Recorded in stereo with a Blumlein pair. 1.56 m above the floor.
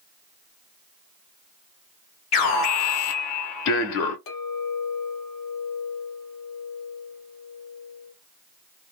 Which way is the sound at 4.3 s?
40° left.